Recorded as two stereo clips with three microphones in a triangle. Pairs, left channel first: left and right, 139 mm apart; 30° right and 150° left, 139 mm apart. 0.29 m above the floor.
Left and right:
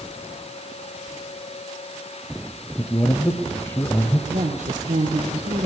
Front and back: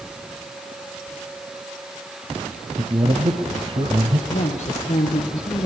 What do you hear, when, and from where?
2.8 s a man speaking: 150° left, 1.6 m
4.3 s a woman speaking: 75° right, 6.5 m